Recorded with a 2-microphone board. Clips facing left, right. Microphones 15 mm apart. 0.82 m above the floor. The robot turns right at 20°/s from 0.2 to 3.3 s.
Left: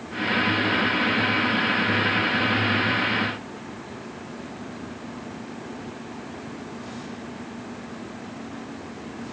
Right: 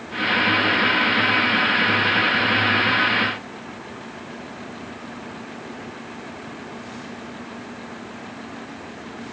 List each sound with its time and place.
Only background noise.